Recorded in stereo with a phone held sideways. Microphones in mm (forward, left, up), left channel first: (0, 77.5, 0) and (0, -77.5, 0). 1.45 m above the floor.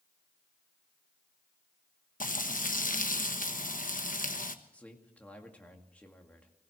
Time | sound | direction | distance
2.2 | frying | 60° left (ahead or behind) | 1.1 m
4.7 | a man speaking | 10° left (ahead or behind) | 2 m